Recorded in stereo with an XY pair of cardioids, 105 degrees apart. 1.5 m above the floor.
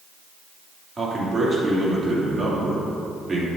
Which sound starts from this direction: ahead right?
A man speaking, at 1.0 s.